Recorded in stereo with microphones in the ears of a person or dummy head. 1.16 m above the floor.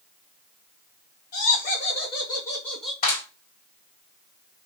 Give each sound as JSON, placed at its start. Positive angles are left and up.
{"t": 1.3, "sound": "laughter", "side_deg": 50, "distance_m": 1.7}
{"t": 3.0, "sound": "a clap", "side_deg": 45, "distance_m": 2.0}